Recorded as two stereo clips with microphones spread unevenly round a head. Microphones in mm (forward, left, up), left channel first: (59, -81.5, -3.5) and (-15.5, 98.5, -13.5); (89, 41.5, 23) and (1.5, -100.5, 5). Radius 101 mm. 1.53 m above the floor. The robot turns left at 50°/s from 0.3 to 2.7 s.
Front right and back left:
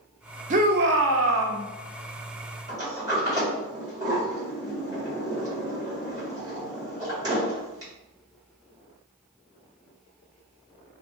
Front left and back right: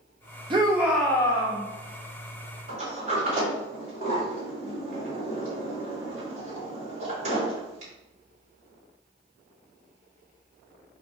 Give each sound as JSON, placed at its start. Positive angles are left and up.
{"t": 0.5, "sound": "a shout", "azimuth_deg": 170, "distance_m": 0.5}
{"t": 2.7, "sound": "a sliding door", "azimuth_deg": -175, "distance_m": 2.0}